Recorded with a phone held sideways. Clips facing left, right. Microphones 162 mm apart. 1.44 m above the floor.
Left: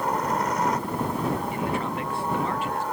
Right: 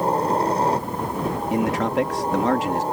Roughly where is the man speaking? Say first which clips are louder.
Right 7 dB; right.